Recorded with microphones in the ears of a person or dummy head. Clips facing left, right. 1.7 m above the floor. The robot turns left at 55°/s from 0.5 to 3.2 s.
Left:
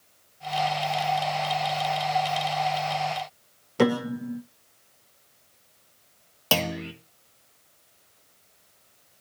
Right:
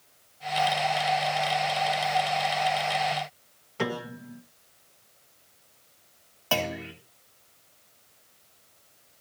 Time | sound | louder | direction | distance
3.8 | a piano | left 9 dB | 60° left (ahead or behind) | 0.9 m
6.5 | a clunk | left 2 dB | 50° left (ahead or behind) | 2 m